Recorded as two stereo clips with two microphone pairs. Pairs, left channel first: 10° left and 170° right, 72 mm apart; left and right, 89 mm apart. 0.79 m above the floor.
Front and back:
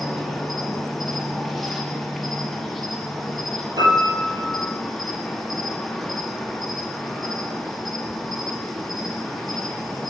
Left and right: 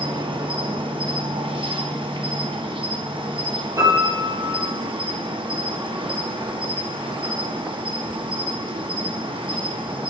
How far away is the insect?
About 0.9 m.